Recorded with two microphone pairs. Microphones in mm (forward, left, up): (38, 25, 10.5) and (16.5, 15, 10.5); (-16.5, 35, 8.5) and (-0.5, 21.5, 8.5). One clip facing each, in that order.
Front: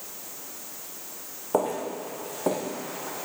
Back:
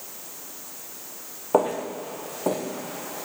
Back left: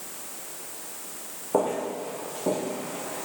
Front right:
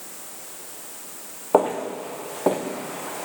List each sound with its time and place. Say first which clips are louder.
1.5 s footsteps: back 4 dB, front right 5 dB; 85° right, 1.4 m; by 3.3 s 45° right, 1.5 m